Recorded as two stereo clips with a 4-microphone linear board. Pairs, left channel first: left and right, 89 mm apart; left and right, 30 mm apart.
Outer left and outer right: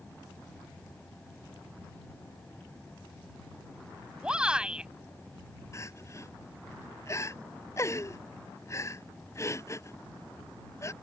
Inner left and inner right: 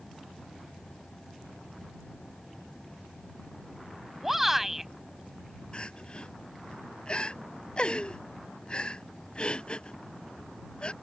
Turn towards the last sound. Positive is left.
turn(degrees=35)  # may be behind; listen again after turning